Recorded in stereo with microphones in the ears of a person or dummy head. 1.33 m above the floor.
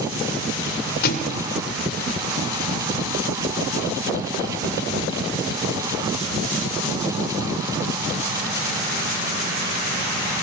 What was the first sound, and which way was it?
A thud, 65° left (ahead or behind).